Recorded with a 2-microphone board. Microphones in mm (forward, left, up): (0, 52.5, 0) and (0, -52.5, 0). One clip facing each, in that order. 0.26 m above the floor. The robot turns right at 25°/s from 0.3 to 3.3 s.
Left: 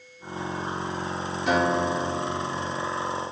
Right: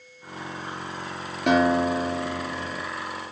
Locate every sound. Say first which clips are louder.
1.5 s a guitar: right 3 dB; 70° right, 4 m; by 2.9 s 35° right, 4 m